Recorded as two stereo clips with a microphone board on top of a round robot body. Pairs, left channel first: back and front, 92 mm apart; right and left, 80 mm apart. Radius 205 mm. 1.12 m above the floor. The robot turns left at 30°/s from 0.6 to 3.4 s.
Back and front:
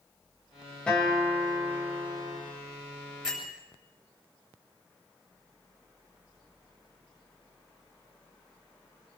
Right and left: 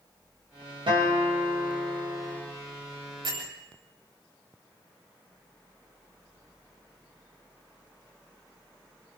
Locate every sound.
0.9 s a guitar: 100° left, 5 m; by 2.4 s 55° left, 5 m
3.2 s a bell: 85° left, 8.5 m; by 3.5 s 80° left, 8.5 m